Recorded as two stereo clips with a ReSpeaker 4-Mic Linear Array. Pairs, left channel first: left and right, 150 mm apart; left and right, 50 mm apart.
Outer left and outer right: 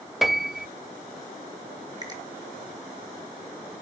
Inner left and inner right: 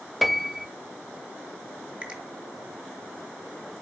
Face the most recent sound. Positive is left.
turn(degrees=-25)  # may be behind; listen again after turning